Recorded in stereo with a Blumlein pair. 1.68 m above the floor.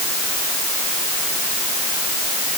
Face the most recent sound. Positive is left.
No sound to turn to.